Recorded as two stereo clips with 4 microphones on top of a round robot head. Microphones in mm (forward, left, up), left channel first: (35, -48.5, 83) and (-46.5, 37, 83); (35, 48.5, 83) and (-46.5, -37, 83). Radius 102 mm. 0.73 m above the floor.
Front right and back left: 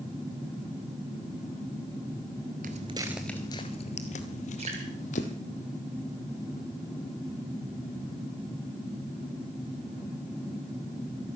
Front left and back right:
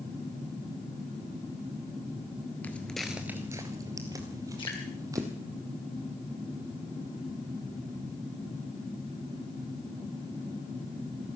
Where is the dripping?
95° left, 4.5 m.